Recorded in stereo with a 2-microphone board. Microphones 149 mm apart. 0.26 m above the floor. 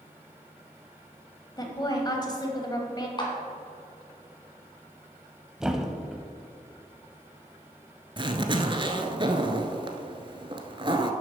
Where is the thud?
5° right (ahead or behind), 0.7 m.